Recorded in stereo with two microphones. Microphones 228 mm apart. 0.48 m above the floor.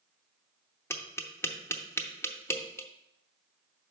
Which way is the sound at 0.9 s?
10° left (ahead or behind).